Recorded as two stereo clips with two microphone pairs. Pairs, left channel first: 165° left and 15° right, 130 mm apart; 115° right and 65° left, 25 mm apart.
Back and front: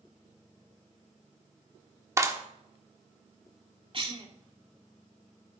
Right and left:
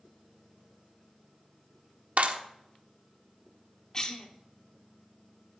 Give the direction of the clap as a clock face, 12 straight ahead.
10 o'clock.